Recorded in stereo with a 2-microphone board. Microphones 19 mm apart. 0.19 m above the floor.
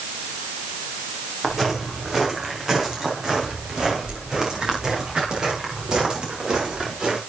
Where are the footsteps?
20° right (ahead or behind), 5.5 m; by 7.2 s 50° right (ahead or behind), 7 m.